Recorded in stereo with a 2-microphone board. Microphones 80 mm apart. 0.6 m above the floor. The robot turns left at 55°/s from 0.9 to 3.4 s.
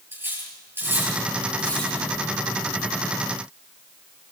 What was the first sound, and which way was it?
Cutlery clinking, 30° right (ahead or behind).